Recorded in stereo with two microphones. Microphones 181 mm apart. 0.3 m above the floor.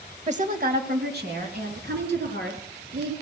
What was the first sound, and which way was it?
A woman speaking, 40° right (ahead or behind).